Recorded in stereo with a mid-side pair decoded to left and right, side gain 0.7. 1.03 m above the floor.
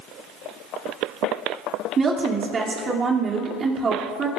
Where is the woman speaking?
30° right, 2.5 m.